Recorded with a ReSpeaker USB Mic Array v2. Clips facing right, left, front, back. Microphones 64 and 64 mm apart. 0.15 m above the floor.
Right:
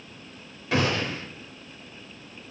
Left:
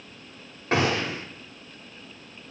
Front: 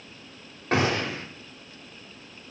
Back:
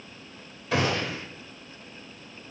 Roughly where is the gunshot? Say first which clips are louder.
Left 1 dB, front 2 dB; ahead left.